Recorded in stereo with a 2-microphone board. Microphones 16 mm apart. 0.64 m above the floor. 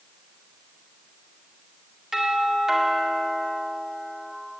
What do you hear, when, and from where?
2.1 s a doorbell: 40° right (ahead or behind), 2 m